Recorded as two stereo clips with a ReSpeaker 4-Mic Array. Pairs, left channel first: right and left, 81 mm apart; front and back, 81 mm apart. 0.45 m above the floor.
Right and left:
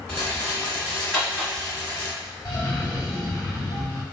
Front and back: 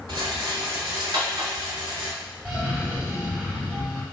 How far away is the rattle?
About 1.3 m.